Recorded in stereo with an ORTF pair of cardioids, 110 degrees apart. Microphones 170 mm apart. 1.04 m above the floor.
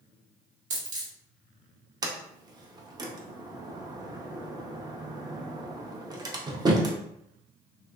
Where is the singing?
I don't hear singing.